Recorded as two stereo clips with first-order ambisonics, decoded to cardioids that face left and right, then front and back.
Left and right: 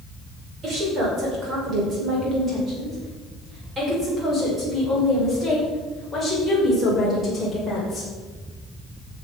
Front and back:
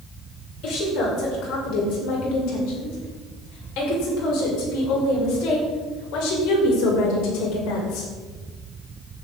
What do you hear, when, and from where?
0.6 s a woman speaking: 35° right, 6 m; by 8.1 s 5° left, 6.5 m